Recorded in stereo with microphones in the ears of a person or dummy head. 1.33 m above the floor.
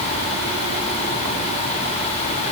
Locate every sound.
Only background noise.